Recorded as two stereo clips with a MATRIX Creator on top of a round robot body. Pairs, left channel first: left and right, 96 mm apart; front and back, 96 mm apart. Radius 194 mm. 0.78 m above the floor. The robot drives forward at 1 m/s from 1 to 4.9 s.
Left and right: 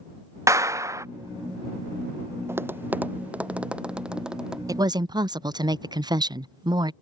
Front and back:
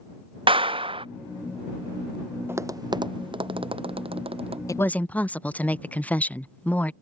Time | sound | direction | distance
0.5 | a clap | 150° right | ?
2.5 | tapping | 135° right | ?
4.7 | a woman speaking | 45° right | ?